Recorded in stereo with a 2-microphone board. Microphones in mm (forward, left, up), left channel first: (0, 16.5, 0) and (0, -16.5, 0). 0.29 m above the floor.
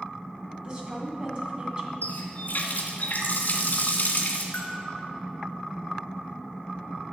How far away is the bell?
About 1.9 m.